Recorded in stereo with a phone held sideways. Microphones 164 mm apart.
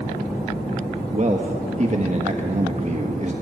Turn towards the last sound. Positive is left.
turn(degrees=-45)  # may be behind; listen again after turning